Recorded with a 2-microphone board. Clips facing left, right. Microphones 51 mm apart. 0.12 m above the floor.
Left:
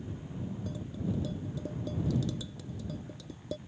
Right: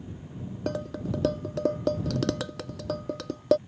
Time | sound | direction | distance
0.7 | dishes clattering | 70° right (ahead or behind) | ?